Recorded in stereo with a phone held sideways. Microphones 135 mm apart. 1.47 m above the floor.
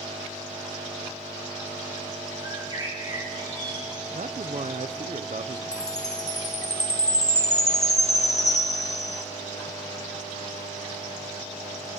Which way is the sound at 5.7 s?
55° left (ahead or behind).